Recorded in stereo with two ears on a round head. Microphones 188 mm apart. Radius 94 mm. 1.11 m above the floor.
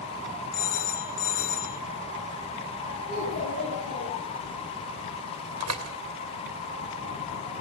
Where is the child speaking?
45° left (ahead or behind), 9 m.